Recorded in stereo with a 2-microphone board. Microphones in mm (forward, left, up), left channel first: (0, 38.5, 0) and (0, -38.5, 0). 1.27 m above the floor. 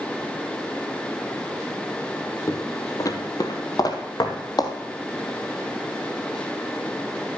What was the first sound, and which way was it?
Footsteps, 45° left (ahead or behind).